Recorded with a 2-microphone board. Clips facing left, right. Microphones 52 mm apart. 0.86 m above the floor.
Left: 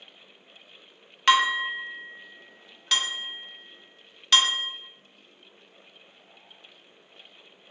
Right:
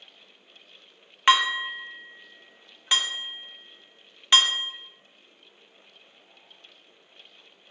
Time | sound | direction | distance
1.3 | dishes clattering | 15° right (ahead or behind) | 0.6 m